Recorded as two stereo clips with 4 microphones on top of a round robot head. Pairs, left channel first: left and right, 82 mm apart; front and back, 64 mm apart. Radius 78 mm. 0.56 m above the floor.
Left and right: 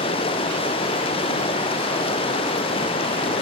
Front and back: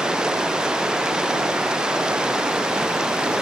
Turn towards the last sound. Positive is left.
turn(degrees=105)